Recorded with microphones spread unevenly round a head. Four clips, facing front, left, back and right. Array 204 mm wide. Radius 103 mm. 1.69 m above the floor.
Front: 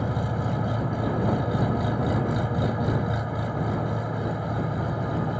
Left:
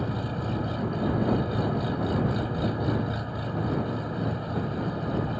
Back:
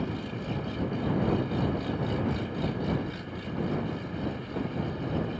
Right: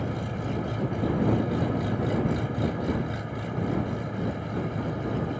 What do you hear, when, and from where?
0.0 s an engine running: 5° right